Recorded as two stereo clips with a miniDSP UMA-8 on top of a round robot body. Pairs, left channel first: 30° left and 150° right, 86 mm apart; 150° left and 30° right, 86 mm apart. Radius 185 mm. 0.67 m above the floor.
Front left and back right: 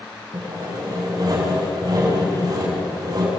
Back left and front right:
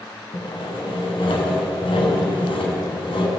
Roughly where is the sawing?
Behind.